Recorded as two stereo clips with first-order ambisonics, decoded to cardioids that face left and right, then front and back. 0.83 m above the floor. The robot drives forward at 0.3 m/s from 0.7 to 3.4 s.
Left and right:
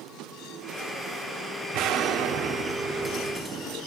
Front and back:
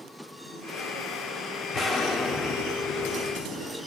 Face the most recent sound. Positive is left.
turn(degrees=-75)